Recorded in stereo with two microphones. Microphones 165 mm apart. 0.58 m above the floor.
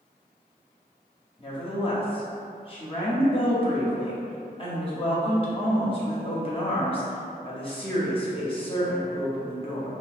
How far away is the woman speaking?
About 0.7 m.